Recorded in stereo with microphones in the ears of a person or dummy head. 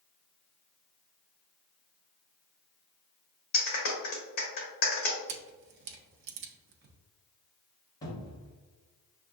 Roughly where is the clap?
Left.